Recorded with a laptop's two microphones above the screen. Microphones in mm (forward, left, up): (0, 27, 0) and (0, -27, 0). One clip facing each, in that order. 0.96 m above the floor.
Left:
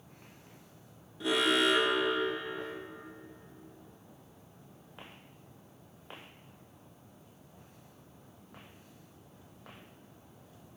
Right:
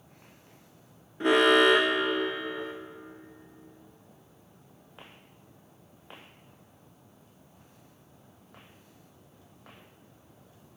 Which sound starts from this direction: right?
An alarm, at 1.2 s.